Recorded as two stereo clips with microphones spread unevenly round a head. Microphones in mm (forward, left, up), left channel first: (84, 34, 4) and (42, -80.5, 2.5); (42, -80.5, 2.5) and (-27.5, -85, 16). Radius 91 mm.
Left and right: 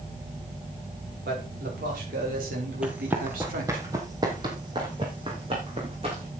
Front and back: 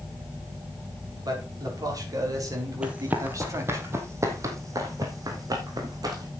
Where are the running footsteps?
175° left, 1.7 m; by 6.3 s 170° right, 4 m.